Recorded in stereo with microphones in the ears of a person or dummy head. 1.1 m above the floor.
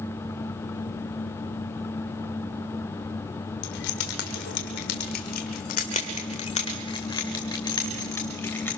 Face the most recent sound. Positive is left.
turn(degrees=15)  # may be behind; listen again after turning